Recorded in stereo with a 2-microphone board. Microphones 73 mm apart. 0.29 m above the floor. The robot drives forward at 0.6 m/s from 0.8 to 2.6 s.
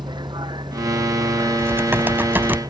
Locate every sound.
0.0 s a vehicle: 85° right
1.6 s typing on a keyboard: 30° right (ahead or behind); by 2.6 s 25° right (ahead or behind)